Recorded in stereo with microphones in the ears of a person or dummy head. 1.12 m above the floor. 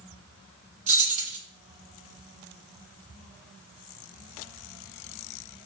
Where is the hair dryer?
I don't hear a hair dryer.